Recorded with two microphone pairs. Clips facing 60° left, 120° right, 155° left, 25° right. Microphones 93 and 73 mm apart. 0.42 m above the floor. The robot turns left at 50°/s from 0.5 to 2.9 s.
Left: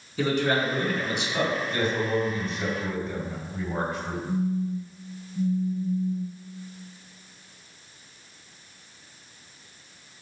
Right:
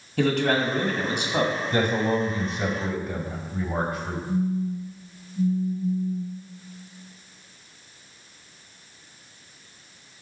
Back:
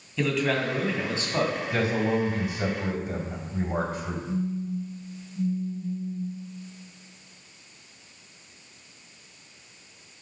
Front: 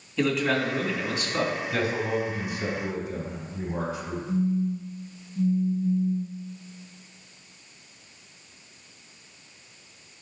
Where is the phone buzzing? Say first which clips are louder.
Right 2 dB, front 5 dB; 20° left, 2 m.